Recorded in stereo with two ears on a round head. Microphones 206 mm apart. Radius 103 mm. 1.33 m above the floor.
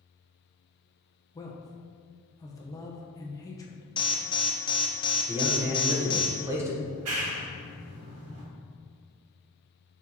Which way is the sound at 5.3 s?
15° right (ahead or behind).